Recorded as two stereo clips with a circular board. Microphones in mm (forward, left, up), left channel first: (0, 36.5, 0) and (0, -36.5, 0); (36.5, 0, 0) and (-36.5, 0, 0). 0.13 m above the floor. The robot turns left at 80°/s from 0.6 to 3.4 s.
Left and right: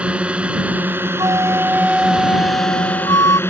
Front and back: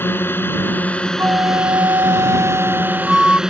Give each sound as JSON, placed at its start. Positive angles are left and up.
{"t": 0.0, "sound": "a drone", "azimuth_deg": -30}
{"t": 1.2, "sound": "a flute", "azimuth_deg": -115}